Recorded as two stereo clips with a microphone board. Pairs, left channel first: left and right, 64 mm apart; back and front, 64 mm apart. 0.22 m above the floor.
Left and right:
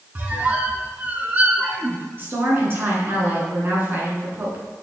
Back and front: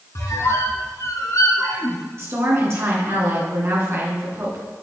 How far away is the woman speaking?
About 2.5 m.